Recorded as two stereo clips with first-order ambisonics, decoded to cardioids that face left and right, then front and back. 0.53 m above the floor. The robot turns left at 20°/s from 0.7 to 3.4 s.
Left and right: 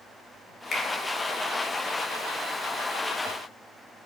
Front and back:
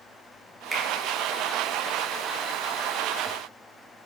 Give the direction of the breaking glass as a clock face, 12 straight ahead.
I don't hear breaking glass.